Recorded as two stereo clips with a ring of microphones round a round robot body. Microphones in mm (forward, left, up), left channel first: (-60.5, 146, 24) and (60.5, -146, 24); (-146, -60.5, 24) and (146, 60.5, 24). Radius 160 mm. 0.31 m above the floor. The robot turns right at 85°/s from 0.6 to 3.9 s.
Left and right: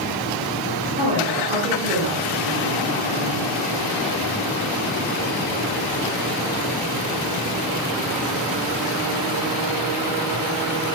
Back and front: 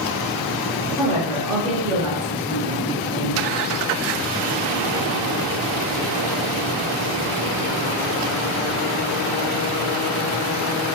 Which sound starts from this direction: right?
A woman speaking, at 1.0 s.